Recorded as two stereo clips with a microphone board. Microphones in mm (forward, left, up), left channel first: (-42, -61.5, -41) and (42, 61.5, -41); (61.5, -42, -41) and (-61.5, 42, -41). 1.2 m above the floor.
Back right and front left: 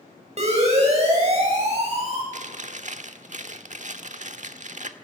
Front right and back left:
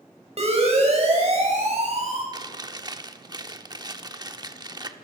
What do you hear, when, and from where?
0.4 s a siren: 100° left, 9 m
2.3 s chewing: 85° left, 1.3 m